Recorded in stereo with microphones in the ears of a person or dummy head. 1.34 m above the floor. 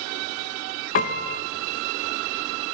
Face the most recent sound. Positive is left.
turn(degrees=45)  # may be behind; listen again after turning